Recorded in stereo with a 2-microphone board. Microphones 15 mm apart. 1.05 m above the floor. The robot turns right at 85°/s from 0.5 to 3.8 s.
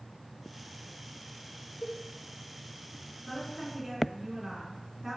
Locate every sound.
1.8 s a cowbell: 60° left (ahead or behind), 1.0 m; by 2.0 s 45° left (ahead or behind), 1.0 m
3.3 s a woman speaking: 165° left, 2.5 m; by 5.2 s 150° right, 2.5 m